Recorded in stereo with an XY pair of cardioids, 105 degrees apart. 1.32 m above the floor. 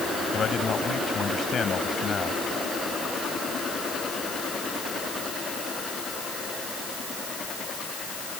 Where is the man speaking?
45° left.